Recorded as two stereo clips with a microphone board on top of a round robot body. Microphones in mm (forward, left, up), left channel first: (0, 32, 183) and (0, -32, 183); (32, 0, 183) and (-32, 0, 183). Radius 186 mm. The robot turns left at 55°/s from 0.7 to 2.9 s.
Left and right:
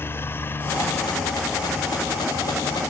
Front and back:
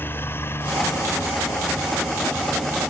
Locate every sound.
0.0 s a helicopter: 45° left; by 2.9 s 90° right